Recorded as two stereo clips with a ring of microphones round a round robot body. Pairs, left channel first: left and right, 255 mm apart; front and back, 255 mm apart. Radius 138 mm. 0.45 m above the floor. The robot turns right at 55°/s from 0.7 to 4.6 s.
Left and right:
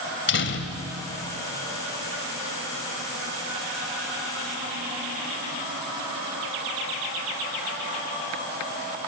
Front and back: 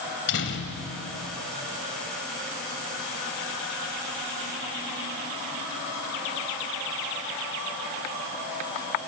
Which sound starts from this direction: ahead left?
A door slam, at 0.3 s.